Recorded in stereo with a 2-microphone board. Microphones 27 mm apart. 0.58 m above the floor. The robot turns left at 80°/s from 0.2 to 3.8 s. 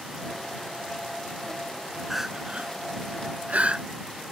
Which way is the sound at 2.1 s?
5° right (ahead or behind).